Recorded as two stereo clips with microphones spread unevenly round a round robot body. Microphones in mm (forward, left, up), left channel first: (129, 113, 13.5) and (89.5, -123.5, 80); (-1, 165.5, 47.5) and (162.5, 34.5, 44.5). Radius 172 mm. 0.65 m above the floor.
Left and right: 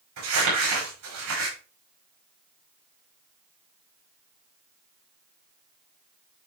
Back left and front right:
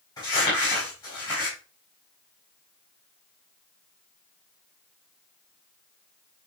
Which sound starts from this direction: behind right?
Crumpling, at 0.2 s.